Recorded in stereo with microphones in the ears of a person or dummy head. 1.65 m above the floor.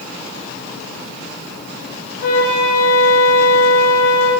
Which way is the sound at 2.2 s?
65° left (ahead or behind).